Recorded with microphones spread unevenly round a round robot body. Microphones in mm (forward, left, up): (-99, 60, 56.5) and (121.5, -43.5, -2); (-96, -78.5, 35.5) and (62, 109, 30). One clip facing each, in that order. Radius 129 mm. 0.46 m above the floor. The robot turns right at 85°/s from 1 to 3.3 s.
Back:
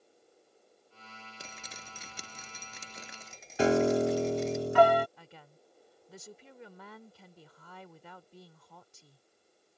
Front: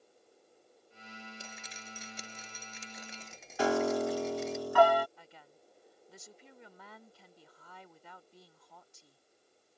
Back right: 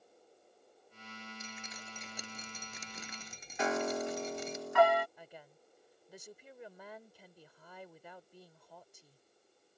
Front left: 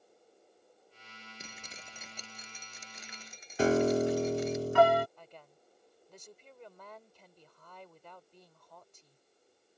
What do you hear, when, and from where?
1.4 s dripping: 85° left; by 4.6 s 115° right
3.6 s a piano: 80° left
5.2 s a woman speaking: 150° left